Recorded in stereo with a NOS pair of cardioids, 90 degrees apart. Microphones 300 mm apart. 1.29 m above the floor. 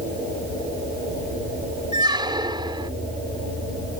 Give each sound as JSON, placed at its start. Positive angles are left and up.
{"t": 1.9, "sound": "a squeak", "azimuth_deg": -15}